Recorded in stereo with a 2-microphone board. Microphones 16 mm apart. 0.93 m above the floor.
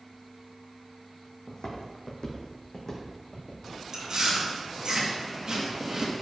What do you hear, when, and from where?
1.5 s footsteps: 65° left (ahead or behind), 2 m; by 3.6 s 15° left (ahead or behind), 3.5 m
3.9 s chewing: 45° right (ahead or behind), 1.6 m